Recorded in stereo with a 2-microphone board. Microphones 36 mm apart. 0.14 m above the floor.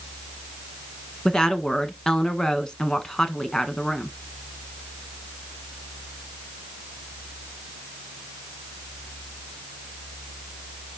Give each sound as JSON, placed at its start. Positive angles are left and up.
{"t": 1.2, "sound": "a woman speaking", "side_deg": 20, "distance_m": 1.2}